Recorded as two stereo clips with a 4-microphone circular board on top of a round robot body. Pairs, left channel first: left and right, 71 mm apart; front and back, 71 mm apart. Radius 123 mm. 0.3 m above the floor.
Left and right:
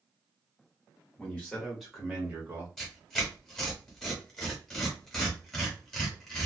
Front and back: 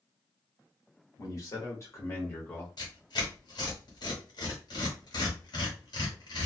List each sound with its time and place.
1.2 s a man speaking: 20° left, 1.4 m; by 2.7 s 65° right, 1.1 m
2.8 s tearing paper: 5° left, 1.2 m